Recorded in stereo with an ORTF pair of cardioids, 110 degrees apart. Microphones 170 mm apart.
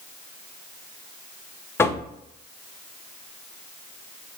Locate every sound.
1.8 s knocking: 15° left, 0.6 m